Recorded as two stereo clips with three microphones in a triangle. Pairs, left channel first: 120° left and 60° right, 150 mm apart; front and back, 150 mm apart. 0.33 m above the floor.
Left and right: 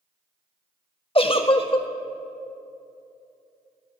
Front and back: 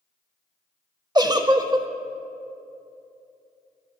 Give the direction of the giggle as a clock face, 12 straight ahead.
8 o'clock.